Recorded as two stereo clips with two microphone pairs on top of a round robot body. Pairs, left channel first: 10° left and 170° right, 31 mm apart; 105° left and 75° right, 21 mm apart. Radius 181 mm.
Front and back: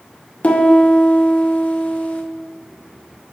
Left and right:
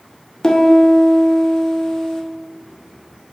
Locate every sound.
0.4 s a piano: 45° left, 1.9 m